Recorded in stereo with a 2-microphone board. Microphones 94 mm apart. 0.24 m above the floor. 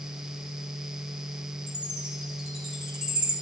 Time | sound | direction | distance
1.7 | a chime | 10° right (ahead or behind) | 2.5 m